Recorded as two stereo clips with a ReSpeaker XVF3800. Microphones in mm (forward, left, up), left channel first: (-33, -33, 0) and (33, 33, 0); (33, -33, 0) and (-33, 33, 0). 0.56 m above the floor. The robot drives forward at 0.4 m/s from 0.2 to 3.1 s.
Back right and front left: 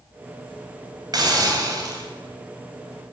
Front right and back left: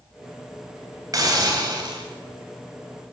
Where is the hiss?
85° left, 3 m; by 2.0 s 95° left, 3 m.